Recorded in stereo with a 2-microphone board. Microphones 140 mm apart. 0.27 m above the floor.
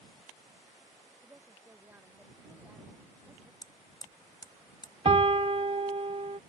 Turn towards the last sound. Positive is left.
turn(degrees=-45)  # may be behind; listen again after turning